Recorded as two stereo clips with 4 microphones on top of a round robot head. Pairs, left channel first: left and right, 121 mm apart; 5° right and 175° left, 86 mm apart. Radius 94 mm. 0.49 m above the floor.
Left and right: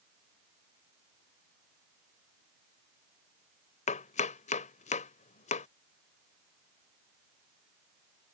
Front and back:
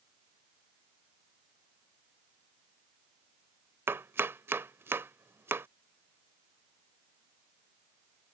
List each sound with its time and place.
3.9 s chopping: 115° left